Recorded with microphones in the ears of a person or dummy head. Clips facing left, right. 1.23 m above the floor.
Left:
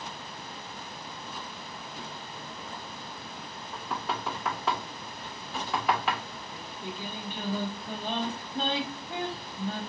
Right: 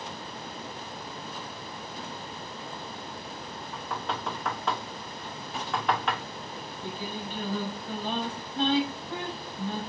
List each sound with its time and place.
3.7 s knocking: 5° left (ahead or behind), 0.6 m
6.5 s singing: 50° left (ahead or behind), 3 m